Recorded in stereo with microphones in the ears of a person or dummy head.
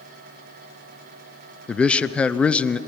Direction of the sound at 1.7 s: Centre (ahead or behind).